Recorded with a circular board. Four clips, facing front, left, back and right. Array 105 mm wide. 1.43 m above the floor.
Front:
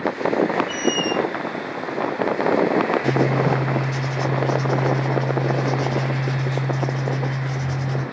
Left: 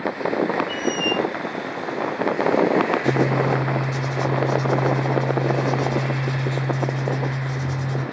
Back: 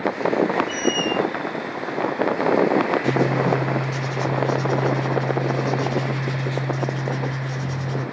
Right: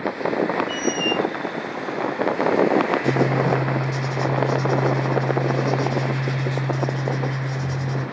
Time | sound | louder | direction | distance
0.7 | a squeak | even, even | 15° left | 3 m
3.0 | writing | even, even | 10° right | 3 m